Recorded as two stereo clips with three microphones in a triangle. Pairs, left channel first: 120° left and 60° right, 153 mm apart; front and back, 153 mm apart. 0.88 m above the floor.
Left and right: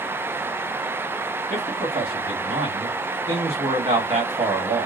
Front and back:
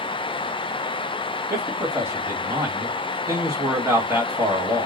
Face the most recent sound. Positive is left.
turn(degrees=-105)